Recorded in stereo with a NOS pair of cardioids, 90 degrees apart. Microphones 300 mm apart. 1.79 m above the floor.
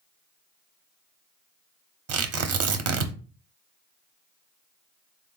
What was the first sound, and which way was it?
Tearing paper, 55° right.